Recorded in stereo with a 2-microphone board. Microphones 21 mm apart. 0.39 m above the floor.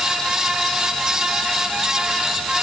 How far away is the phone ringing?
I don't hear a phone ringing.